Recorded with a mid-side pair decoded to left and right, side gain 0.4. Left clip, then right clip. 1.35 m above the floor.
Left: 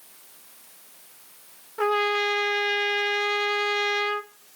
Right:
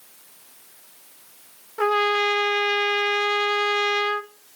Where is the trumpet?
15° right, 1.3 m.